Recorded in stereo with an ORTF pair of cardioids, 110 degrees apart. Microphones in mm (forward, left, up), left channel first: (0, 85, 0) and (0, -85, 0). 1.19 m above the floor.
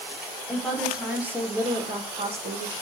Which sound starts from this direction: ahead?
A woman speaking, at 0.5 s.